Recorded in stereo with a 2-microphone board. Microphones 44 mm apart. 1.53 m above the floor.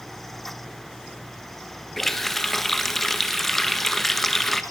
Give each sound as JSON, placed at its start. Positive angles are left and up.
{"t": 2.0, "sound": "a running tap", "side_deg": 5, "distance_m": 0.8}